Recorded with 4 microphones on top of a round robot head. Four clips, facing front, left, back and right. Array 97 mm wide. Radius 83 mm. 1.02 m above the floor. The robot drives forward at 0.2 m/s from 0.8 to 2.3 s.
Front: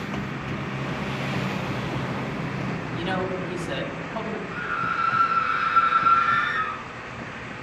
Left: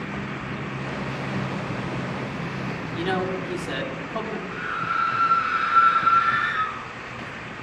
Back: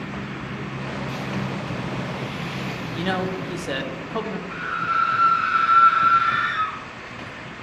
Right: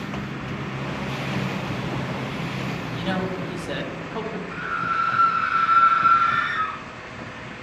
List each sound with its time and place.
2.9 s a man speaking: 175° left, 1.5 m
4.5 s a scream: 160° right, 4 m